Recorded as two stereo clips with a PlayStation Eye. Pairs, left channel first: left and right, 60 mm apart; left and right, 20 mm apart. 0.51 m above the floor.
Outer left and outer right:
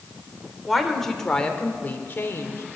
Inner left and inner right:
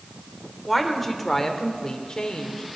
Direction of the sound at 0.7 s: Centre (ahead or behind).